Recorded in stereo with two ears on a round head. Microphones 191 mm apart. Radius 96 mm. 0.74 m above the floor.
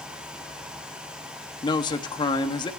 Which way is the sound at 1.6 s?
20° left (ahead or behind).